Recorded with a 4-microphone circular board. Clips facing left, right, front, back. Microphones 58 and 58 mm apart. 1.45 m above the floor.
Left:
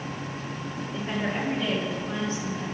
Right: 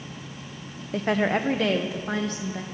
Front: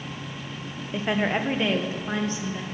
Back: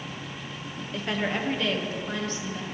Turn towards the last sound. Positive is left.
turn(degrees=-70)